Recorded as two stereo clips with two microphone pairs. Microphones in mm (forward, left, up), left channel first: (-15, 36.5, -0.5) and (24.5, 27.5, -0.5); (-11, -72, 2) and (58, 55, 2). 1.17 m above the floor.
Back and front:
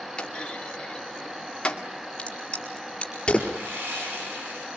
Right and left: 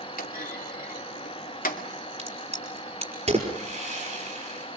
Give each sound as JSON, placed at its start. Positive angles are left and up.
{"t": 0.2, "sound": "a clunk", "azimuth_deg": -130, "distance_m": 2.5}
{"t": 2.2, "sound": "a crack", "azimuth_deg": 100, "distance_m": 4.5}
{"t": 3.5, "sound": "sawing", "azimuth_deg": 25, "distance_m": 9.5}